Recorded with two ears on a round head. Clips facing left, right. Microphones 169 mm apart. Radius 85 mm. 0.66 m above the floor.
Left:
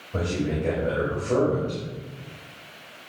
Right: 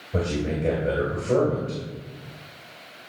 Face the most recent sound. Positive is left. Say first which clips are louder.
# even
turn(degrees=-20)  # may be behind; listen again after turning